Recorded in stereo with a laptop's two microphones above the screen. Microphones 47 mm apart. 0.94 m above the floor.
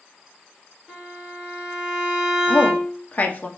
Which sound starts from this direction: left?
A woman speaking, at 2.5 s.